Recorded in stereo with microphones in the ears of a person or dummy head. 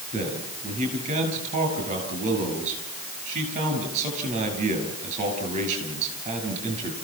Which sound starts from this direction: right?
A man speaking, at 0.1 s.